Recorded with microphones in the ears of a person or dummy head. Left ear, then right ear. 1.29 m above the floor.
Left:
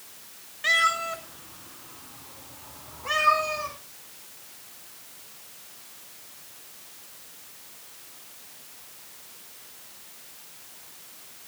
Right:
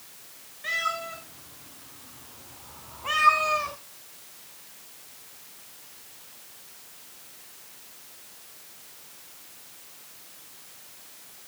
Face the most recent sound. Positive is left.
turn(degrees=-30)  # may be behind; listen again after turning